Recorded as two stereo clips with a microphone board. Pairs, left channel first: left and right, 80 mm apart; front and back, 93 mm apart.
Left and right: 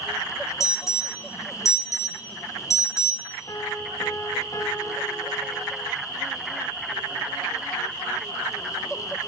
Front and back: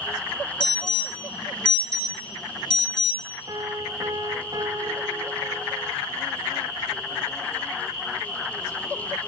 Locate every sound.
0.6 s an alarm: 40° left, 2.5 m
3.5 s a piano: 135° left, 3 m